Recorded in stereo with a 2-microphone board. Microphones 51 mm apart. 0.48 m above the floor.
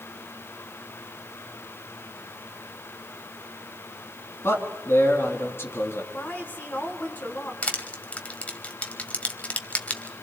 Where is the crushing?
25° left (ahead or behind), 1.4 m.